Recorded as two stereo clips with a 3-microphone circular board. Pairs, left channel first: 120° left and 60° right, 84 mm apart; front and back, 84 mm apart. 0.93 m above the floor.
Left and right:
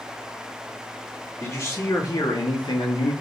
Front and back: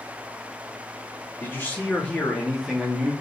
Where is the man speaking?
60° left, 1.5 m; by 3.1 s 100° left, 1.5 m.